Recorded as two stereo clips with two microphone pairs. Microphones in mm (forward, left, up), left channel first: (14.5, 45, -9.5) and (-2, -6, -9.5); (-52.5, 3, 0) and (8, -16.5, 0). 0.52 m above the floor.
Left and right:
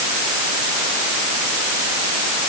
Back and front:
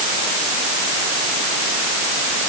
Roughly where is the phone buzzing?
I don't hear a phone buzzing.